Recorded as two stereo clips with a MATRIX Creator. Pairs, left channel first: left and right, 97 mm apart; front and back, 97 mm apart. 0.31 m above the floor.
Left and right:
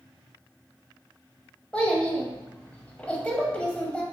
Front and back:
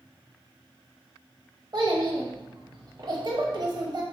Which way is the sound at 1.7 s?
165° left.